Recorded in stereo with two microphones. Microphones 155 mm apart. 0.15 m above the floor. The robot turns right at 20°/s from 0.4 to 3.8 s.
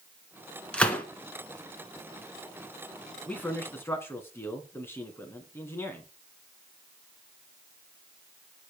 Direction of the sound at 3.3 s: 10° left (ahead or behind).